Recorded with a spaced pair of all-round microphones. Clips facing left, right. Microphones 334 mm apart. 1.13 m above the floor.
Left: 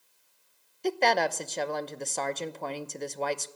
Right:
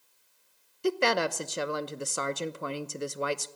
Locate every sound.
0.8 s a woman speaking: 15° right (ahead or behind), 0.7 m